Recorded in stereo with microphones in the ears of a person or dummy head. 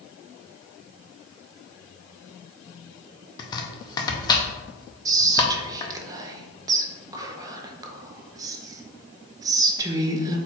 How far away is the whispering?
About 0.6 m.